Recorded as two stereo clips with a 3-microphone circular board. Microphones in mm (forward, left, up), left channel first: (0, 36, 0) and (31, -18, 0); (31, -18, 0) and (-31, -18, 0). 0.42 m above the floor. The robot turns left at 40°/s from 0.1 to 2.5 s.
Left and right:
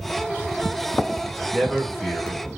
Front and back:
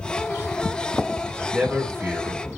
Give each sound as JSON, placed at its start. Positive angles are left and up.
{"t": 1.5, "sound": "a man speaking", "azimuth_deg": -145, "distance_m": 1.1}